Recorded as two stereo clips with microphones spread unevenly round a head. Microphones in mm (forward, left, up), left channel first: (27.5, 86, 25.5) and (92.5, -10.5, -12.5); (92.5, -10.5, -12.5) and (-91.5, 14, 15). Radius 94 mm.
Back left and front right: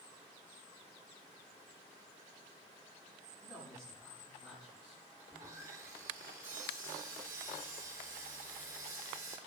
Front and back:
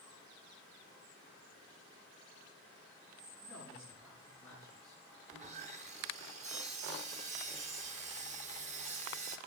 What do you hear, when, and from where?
3.4 s a man speaking: 75° left, 7.5 m
5.3 s sawing: 130° right, 0.8 m